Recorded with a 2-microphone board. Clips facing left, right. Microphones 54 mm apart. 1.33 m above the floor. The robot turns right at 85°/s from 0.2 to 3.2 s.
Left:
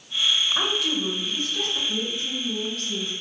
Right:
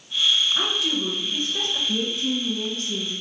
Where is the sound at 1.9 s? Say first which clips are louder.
Right 4 dB; 100° right, 1.3 m; by 3.1 s 5° left, 1.3 m.